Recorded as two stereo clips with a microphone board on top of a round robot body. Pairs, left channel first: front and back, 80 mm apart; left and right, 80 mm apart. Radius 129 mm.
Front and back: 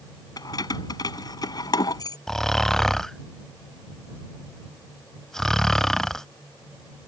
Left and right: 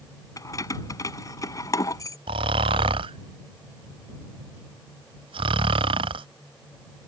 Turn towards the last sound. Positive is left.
turn(degrees=-85)